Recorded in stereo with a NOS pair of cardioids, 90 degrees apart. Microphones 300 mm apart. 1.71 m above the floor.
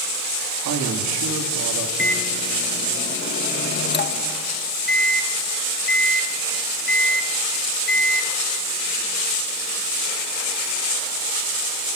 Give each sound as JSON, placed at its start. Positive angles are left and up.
{"t": 0.7, "sound": "a man speaking", "azimuth_deg": -60, "distance_m": 3.5}
{"t": 2.0, "sound": "a microwave", "azimuth_deg": 35, "distance_m": 1.8}